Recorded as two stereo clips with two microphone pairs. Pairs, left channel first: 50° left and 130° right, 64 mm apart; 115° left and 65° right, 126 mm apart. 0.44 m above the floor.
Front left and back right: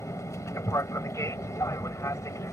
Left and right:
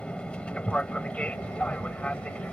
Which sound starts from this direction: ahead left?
An aircraft, at 0.0 s.